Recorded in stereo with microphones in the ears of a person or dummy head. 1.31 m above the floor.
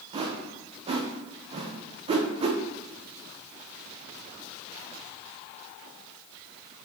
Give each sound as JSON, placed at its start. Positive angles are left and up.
{"t": 0.1, "sound": "a whoosh", "side_deg": -35, "distance_m": 0.5}